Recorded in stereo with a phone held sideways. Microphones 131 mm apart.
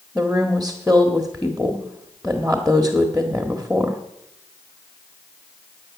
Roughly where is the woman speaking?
Centre.